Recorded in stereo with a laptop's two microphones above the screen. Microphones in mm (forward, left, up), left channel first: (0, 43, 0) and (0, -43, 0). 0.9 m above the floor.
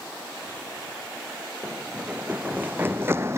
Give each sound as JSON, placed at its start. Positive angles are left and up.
{"t": 1.6, "sound": "running footsteps", "side_deg": -15}